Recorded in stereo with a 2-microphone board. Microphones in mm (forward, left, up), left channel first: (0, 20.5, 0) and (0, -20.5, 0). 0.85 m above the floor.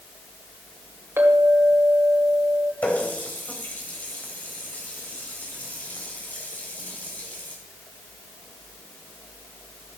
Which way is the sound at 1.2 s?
85° right.